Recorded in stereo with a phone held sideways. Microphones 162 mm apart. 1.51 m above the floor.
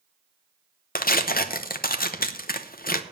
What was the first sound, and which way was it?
Tearing paper, 65° left (ahead or behind).